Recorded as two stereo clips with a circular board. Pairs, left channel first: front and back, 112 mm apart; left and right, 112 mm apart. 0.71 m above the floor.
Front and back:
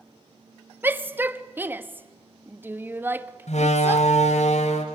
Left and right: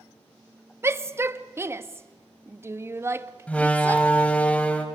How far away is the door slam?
About 2.5 m.